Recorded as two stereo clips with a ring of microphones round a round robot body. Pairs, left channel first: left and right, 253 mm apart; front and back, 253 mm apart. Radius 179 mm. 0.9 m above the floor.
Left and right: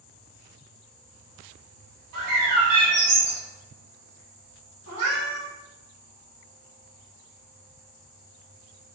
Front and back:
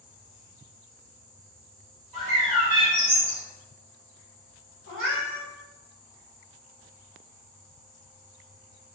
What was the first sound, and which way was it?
A bird, 105° right.